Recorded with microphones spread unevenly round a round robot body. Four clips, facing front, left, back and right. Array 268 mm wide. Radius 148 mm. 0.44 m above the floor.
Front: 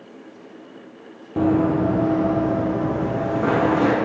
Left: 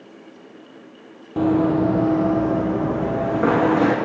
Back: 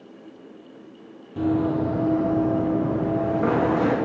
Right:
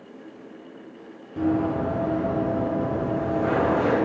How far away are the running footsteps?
About 1.0 m.